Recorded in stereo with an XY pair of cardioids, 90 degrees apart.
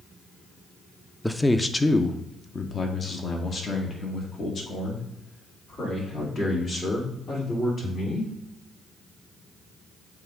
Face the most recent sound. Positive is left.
turn(degrees=55)